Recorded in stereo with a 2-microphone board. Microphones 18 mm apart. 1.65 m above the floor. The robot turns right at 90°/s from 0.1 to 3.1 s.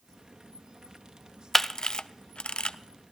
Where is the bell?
No bell in this recording.